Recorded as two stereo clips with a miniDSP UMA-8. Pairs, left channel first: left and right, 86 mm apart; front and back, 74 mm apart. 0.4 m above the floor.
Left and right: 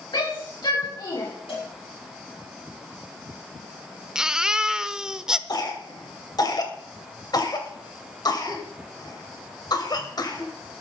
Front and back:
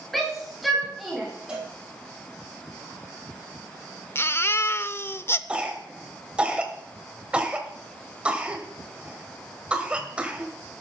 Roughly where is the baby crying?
Ahead.